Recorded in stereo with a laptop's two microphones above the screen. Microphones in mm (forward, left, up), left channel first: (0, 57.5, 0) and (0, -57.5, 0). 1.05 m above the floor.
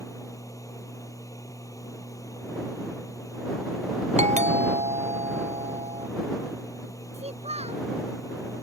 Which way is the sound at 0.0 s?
30° left (ahead or behind).